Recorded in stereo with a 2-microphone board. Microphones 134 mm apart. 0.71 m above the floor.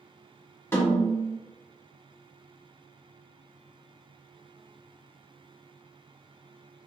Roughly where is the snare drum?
Centre.